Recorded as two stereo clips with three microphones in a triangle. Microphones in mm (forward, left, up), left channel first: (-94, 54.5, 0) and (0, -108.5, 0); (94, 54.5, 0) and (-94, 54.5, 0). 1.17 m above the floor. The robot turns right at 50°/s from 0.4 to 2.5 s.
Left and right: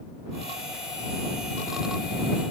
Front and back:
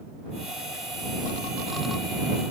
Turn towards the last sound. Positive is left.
No sound to turn to.